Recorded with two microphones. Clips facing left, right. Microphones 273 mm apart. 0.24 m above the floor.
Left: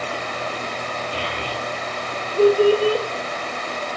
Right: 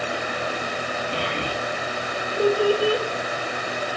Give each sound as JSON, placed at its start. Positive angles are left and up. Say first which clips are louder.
{"t": 1.1, "sound": "a child speaking", "louder": "right 1 dB", "side_deg": -50, "distance_m": 4.5}